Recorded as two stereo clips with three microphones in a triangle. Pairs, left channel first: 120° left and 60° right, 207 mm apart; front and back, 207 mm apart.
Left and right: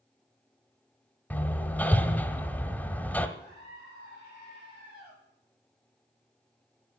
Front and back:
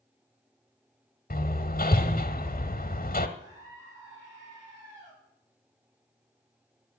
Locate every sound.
1.3 s hammering: 40° left, 1.1 m
3.4 s a scream: 110° right, 7 m